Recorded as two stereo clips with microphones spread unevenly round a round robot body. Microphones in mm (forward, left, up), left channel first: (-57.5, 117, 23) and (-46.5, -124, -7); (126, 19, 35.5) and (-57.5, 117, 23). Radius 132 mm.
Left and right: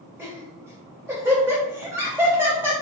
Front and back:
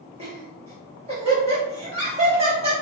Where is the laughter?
160° right, 1.6 m.